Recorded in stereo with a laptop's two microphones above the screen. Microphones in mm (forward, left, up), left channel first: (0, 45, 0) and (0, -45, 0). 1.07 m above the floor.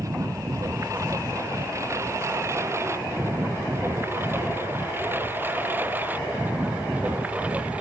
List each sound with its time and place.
0.0 s a lawn mower: 40° right (ahead or behind); by 7.8 s 15° right (ahead or behind)